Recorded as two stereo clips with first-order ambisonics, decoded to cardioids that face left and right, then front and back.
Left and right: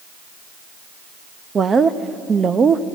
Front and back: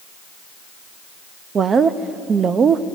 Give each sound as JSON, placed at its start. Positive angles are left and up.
{"t": 1.6, "sound": "a woman speaking", "azimuth_deg": -140, "distance_m": 0.6}